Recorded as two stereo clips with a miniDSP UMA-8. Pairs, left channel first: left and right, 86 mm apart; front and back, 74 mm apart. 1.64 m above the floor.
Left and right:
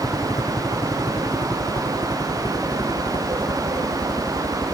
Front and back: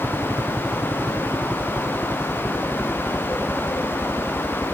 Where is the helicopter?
115° left; by 4.8 s 100° left.